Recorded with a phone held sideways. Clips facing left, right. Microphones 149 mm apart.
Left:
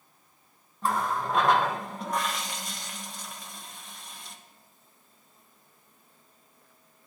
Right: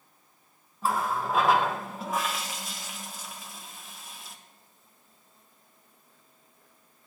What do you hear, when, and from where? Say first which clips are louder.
0.8 s a running tap: even; 5° right (ahead or behind), 0.6 m